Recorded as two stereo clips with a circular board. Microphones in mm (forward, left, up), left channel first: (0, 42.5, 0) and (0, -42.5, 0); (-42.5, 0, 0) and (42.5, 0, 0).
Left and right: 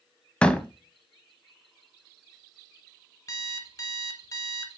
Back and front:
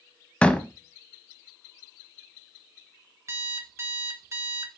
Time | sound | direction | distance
0.4 | a door slam | 140° left | 0.7 m
3.3 | an alarm clock | 50° left | 1.3 m